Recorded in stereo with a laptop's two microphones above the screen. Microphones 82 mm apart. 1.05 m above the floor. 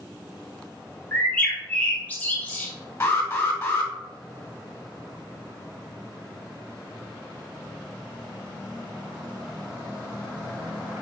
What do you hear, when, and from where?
1.1 s a bird: 20° left (ahead or behind), 0.5 m
3.0 s an alarm: 25° left (ahead or behind), 1.1 m